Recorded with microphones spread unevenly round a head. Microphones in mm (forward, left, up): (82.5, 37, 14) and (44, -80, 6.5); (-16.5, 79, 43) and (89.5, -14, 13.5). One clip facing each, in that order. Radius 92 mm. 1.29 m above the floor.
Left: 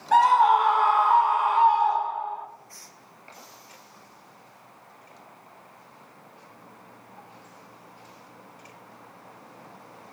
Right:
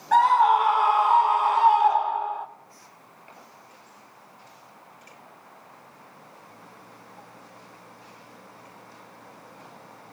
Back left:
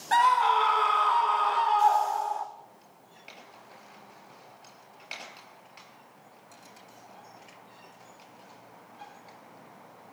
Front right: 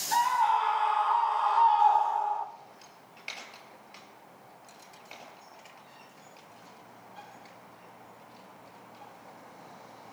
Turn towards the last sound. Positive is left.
turn(degrees=-155)